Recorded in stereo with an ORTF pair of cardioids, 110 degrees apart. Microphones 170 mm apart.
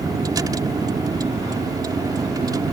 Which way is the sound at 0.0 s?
20° right.